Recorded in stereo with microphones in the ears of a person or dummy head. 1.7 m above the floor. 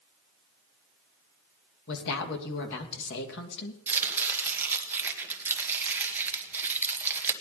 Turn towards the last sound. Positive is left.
turn(degrees=-10)  # may be behind; listen again after turning